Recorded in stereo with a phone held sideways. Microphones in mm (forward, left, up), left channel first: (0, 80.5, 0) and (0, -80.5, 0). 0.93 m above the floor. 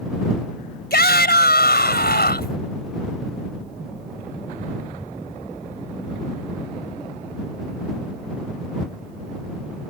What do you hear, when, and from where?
0.9 s a shout: 85° left